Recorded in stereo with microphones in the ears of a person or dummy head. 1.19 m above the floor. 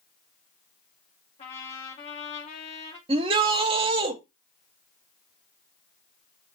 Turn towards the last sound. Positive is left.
turn(degrees=-25)  # may be behind; listen again after turning